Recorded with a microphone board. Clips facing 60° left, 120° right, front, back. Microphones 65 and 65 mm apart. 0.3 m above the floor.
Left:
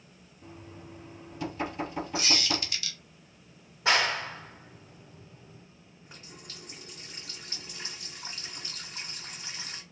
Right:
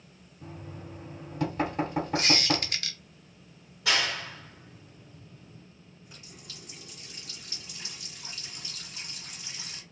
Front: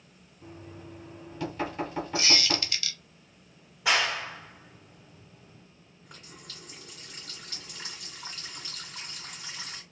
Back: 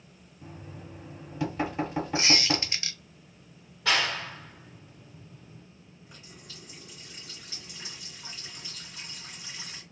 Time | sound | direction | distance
0.4 | knocking | 105° right | 1.8 m
2.1 | a squeak | 120° right | 0.7 m
3.9 | a clap | 65° left | 0.8 m
6.0 | a running tap | 20° left | 1.8 m